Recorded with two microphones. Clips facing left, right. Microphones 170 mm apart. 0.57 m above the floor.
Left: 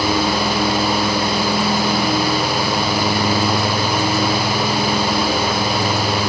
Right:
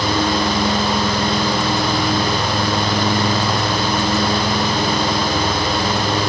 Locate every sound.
Only background noise.